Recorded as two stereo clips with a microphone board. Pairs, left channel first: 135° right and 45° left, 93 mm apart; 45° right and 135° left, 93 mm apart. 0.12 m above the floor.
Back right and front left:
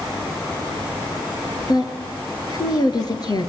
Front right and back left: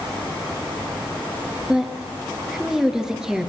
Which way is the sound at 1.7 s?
145° right.